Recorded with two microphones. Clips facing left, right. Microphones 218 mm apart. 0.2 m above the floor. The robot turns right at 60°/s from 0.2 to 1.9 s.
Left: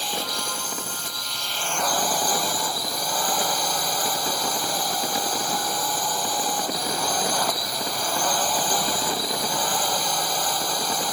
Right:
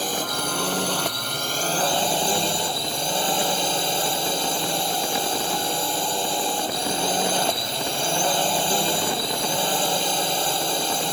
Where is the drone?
130° right; by 11.1 s 30° right.